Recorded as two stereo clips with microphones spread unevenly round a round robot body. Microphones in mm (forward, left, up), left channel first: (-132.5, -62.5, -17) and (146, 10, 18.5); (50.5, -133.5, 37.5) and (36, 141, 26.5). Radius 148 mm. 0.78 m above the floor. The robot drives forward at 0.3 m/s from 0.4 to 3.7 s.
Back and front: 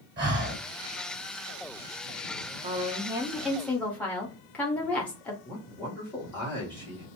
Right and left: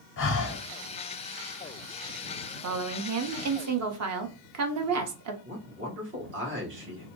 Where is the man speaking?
120° left, 1.4 m.